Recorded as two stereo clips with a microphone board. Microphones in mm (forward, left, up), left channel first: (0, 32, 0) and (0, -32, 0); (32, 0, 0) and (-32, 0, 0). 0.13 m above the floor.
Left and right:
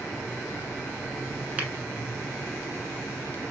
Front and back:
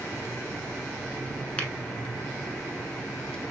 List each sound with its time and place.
1.6 s a finger snap: 50° right, 0.9 m